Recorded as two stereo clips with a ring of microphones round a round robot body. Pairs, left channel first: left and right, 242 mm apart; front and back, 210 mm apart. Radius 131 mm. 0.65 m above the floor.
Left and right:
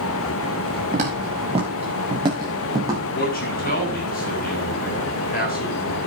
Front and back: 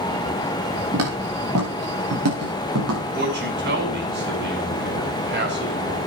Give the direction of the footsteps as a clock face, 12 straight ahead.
5 o'clock.